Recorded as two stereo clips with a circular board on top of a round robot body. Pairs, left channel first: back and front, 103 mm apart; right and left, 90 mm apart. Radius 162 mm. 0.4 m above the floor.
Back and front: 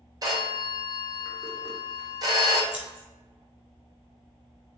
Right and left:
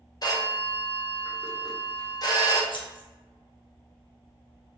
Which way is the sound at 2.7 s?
80° right.